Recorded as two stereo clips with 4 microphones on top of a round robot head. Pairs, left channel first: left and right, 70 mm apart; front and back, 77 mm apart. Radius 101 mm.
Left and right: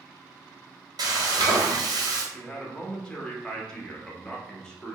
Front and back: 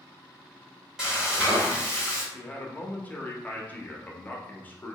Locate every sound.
1.0 s frying: 100° right, 1.1 m
2.3 s a man speaking: 25° left, 0.8 m